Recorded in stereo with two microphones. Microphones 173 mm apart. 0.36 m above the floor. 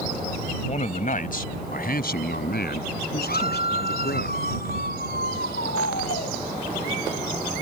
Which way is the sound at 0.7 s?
45° left (ahead or behind).